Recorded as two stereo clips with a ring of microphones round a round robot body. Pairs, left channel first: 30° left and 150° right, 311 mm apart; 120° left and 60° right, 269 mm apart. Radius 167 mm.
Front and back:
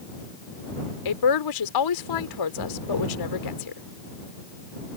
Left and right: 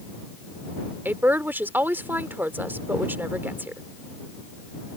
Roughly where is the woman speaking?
Ahead left.